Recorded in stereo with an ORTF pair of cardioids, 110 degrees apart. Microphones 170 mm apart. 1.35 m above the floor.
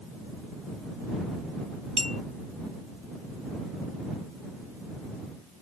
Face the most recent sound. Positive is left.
turn(degrees=-35)